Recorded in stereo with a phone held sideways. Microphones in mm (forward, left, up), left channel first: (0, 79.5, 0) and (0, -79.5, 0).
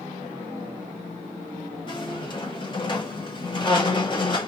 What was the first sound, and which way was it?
A squeak, 30° left (ahead or behind).